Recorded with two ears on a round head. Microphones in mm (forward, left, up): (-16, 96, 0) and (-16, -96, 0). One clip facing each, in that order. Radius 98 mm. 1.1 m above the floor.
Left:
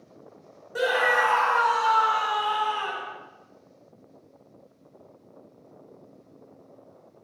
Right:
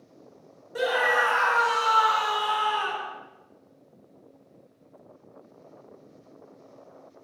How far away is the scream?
About 1.9 m.